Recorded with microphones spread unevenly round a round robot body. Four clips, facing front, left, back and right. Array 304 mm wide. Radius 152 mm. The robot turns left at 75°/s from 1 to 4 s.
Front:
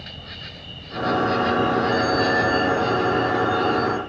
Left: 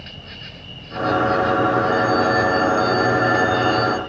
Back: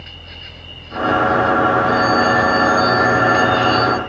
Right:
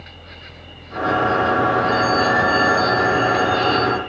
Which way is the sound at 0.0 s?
60° left.